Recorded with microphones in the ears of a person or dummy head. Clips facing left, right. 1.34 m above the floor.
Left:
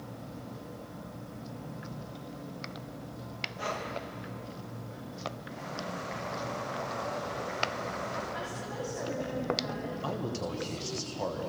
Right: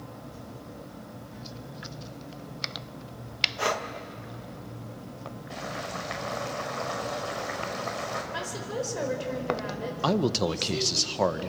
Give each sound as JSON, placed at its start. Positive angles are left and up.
{"t": 3.6, "sound": "breathing", "side_deg": -70, "distance_m": 1.5}
{"t": 5.5, "sound": "boiling", "side_deg": -85, "distance_m": 6.0}
{"t": 8.3, "sound": "a woman speaking", "side_deg": -75, "distance_m": 6.0}
{"t": 10.0, "sound": "a man speaking", "side_deg": -75, "distance_m": 1.2}